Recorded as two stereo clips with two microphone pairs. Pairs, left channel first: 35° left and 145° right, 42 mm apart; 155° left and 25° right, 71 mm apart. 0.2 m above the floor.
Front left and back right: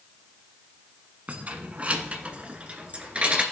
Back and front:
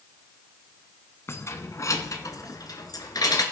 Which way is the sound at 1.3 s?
Straight behind.